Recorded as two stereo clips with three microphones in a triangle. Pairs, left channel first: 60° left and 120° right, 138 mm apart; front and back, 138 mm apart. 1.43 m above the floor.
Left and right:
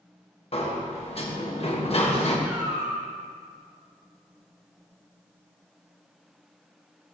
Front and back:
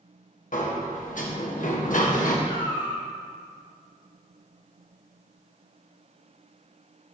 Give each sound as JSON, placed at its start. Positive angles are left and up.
{"t": 0.5, "sound": "a sliding door", "azimuth_deg": 15, "distance_m": 1.2}
{"t": 2.5, "sound": "a cat meowing", "azimuth_deg": -45, "distance_m": 2.5}